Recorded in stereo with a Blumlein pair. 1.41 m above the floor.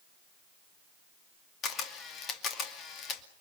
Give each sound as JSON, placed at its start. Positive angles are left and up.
{"t": 1.6, "sound": "a camera shutter", "azimuth_deg": 25, "distance_m": 2.5}